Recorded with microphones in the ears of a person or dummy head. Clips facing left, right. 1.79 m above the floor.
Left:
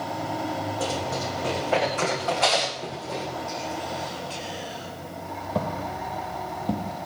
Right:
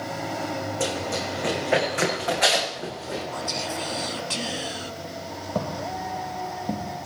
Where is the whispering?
65° right (ahead or behind), 0.6 m.